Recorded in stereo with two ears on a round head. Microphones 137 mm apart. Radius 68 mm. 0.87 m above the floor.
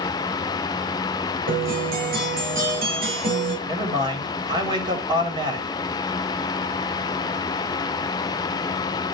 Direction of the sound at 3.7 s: 30° right (ahead or behind).